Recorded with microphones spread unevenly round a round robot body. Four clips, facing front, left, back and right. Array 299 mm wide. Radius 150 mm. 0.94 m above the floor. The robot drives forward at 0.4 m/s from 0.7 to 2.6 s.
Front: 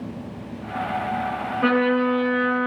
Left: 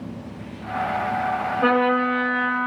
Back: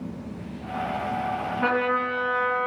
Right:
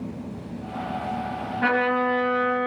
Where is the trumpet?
120° right, 1.8 m; by 2.7 s 130° right, 2 m.